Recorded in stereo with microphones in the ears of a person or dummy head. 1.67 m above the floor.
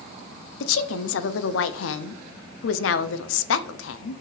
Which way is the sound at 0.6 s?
75° left (ahead or behind).